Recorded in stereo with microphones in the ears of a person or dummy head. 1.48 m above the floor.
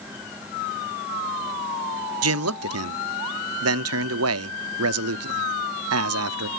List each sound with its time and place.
2.2 s a man speaking: 75° right (ahead or behind), 0.6 m